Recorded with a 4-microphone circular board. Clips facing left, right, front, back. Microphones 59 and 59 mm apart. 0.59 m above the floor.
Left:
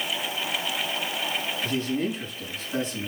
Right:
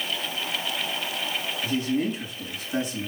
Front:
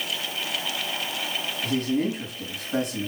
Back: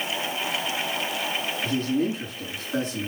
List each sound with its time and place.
1.6 s a man speaking: 5° right, 4 m